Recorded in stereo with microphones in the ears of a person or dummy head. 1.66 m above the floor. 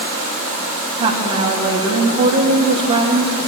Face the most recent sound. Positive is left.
turn(degrees=-40)  # may be behind; listen again after turning